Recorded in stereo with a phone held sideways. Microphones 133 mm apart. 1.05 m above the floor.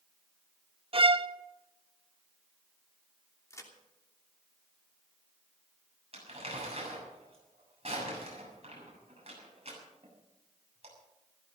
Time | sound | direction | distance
0.9 | a violin | 45° right (ahead or behind) | 0.7 m
3.5 | a crack | 20° left (ahead or behind) | 3 m
6.1 | crumpling | 50° right (ahead or behind) | 7 m